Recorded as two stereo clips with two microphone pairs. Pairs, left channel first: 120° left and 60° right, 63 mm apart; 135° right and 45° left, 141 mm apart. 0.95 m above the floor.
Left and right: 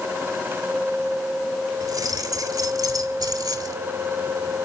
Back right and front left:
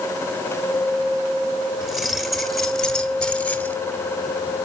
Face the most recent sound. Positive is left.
turn(degrees=-55)